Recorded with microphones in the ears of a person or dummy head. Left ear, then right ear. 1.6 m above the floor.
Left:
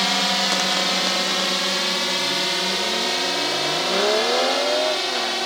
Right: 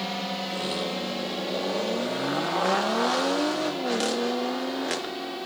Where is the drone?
55° left (ahead or behind); by 5.5 s 60° left (ahead or behind).